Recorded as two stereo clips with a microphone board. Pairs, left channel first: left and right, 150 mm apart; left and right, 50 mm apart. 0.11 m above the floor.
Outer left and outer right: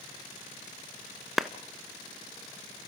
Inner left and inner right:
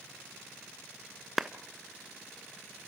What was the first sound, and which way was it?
A clap, centre (ahead or behind).